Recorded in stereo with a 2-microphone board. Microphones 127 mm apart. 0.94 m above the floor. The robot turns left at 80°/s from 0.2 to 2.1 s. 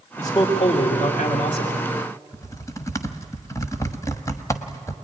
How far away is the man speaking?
About 2 m.